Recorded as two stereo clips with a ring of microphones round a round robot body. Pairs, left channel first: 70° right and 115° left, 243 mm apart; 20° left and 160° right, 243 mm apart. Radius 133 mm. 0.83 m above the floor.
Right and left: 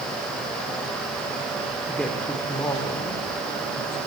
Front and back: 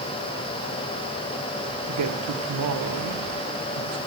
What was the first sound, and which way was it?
A woman speaking, 160° right.